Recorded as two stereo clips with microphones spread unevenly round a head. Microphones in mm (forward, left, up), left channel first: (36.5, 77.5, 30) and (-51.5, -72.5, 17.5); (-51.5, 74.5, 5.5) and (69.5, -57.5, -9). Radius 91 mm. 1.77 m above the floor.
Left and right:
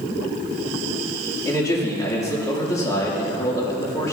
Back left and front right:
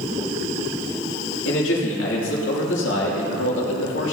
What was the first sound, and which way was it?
A man speaking, 130° left.